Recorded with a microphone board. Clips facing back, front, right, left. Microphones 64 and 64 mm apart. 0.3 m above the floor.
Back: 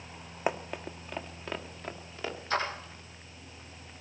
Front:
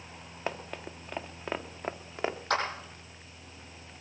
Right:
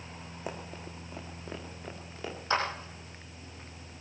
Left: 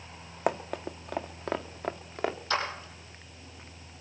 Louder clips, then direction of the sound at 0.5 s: Back 4 dB, left 11 dB; 105° left.